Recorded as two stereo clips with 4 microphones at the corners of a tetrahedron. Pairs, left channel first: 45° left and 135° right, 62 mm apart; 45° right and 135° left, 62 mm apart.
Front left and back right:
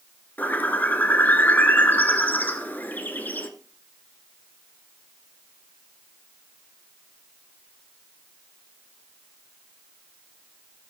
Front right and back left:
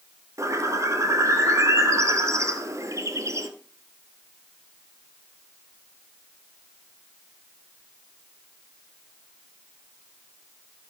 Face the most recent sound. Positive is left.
turn(degrees=105)